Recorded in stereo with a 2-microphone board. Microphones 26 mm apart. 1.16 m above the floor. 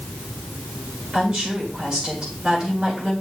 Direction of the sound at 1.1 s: 40° right (ahead or behind).